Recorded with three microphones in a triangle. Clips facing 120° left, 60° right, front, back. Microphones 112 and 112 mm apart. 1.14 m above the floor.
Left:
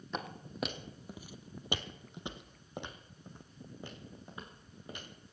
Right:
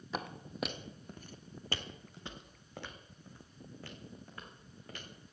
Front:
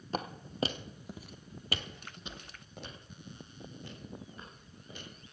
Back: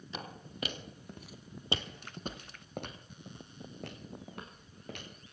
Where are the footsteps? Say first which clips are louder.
Even, front 8 dB; 25° left, 1.7 m; by 5.1 s 170° right, 4.5 m.